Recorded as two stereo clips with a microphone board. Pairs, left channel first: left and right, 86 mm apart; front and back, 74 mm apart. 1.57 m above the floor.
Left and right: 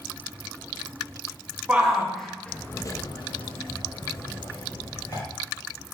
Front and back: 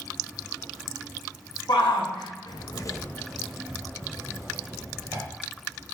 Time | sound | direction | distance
1.7 | a shout | 10° right | 1.3 m